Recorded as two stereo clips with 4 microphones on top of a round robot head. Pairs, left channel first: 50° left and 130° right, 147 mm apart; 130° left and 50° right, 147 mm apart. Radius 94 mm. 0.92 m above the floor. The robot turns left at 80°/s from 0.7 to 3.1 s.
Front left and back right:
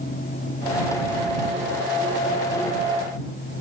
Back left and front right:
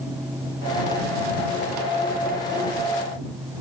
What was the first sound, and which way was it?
Only background noise.